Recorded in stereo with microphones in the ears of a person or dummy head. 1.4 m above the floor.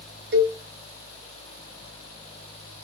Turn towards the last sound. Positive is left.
turn(degrees=-45)  # may be behind; listen again after turning